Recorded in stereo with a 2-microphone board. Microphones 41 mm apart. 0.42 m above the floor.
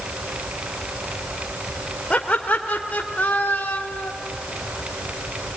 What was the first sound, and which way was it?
Laughter, 30° left (ahead or behind).